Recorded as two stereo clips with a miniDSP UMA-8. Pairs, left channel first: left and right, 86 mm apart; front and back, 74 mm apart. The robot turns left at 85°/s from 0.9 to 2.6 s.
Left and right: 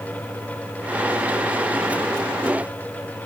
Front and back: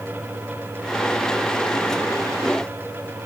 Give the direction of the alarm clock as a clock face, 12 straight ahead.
No alarm clock in this recording.